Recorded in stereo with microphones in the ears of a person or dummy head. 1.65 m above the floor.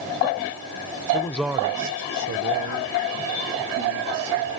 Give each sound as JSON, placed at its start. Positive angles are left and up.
{"t": 1.1, "sound": "a man speaking", "side_deg": 25, "distance_m": 0.7}